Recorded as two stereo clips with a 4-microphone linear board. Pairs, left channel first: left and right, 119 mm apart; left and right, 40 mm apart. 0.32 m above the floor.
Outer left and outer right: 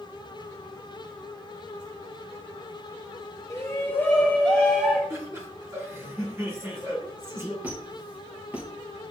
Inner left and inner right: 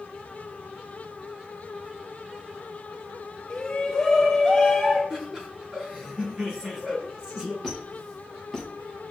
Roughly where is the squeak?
Centre.